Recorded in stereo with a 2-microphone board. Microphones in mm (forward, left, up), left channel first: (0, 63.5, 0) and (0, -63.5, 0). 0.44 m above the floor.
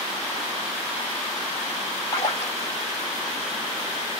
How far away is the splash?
About 1.0 m.